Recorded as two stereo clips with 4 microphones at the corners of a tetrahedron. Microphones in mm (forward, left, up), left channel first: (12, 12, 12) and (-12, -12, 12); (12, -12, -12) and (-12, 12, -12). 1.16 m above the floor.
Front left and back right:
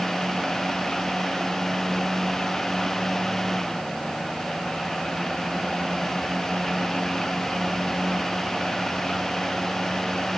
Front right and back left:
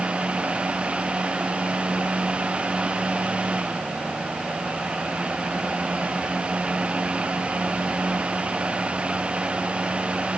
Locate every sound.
Only background noise.